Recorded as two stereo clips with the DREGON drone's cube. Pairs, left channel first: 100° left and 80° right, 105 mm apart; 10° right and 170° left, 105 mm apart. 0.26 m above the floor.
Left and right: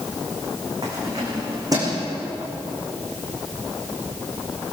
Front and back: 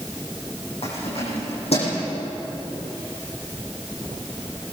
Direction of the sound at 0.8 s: 20° right.